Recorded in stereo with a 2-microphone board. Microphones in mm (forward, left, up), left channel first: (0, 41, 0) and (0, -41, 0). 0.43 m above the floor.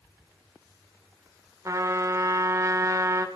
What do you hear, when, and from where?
1.6 s a trumpet: 40° right (ahead or behind), 1.3 m